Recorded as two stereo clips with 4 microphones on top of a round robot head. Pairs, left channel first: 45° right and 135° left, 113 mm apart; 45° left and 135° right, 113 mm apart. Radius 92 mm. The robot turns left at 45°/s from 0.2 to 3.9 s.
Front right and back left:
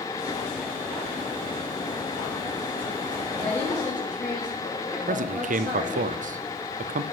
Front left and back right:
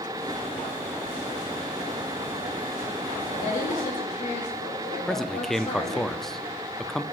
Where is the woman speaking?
35° left, 4 m; by 6.1 s 10° left, 4 m.